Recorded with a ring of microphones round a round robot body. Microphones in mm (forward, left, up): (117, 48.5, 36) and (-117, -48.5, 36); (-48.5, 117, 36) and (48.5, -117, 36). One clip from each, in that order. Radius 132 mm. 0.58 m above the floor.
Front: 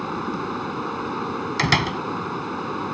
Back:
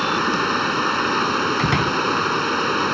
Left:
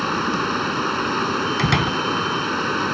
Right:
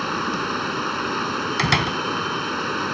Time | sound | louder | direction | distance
0.0 | running water | back 8 dB, left 2 dB | 150° right | ?
1.6 | a door slam | back 1 dB, right 3 dB | 10° right | ?